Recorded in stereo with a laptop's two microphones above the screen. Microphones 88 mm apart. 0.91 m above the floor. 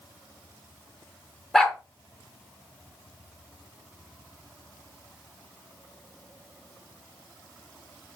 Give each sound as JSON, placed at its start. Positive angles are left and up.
{"t": 1.5, "sound": "a dog barking", "side_deg": 5, "distance_m": 0.6}